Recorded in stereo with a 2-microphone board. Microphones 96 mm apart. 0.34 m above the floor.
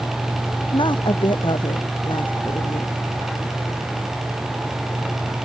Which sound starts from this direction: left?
A woman speaking, at 0.7 s.